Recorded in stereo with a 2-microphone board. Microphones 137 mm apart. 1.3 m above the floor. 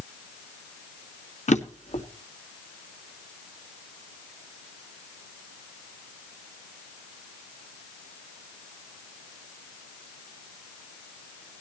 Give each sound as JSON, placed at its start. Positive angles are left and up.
{"t": 1.5, "sound": "a drawer", "side_deg": 65, "distance_m": 1.5}